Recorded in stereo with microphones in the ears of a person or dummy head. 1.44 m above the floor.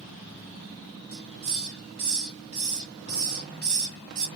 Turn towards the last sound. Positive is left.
turn(degrees=-60)  # may be behind; listen again after turning